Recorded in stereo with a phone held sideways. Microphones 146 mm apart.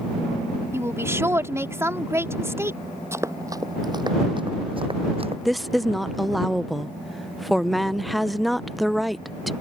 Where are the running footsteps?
15° right (ahead or behind); by 5.3 s 40° right (ahead or behind).